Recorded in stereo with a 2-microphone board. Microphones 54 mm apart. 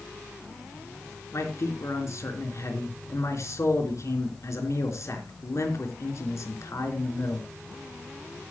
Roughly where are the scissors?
I don't hear scissors.